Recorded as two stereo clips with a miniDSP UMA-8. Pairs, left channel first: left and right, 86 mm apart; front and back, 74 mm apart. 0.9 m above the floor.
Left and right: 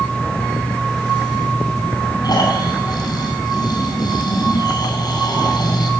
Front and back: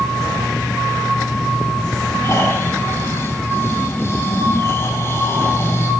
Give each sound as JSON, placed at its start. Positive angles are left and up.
{"t": 2.2, "sound": "snoring", "azimuth_deg": 55, "distance_m": 7.0}